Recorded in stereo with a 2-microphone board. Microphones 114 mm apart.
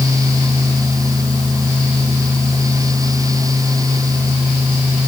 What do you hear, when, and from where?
Only background noise.